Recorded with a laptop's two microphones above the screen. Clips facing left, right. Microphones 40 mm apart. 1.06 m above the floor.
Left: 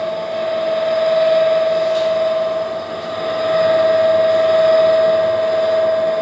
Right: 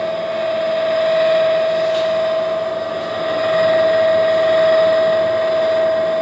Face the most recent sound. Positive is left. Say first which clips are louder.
# right 1 dB
turn(degrees=-65)  # may be behind; listen again after turning